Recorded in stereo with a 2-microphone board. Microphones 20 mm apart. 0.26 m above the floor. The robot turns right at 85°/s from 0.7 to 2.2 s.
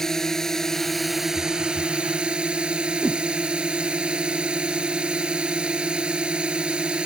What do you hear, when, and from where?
0.0 s a drone: 160° left; by 7.1 s 75° right
3.0 s a whoosh: 35° left (ahead or behind)